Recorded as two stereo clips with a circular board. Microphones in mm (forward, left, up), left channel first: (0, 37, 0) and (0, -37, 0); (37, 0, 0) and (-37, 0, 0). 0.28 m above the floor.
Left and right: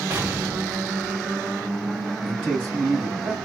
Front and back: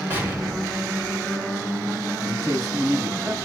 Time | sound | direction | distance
0.1 | an explosion | 135° right | 1.5 m
2.2 | a man speaking | 155° right | 2.0 m